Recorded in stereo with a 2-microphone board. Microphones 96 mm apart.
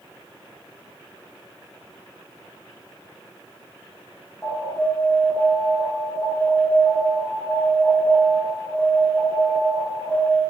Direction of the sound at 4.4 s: 5° left (ahead or behind).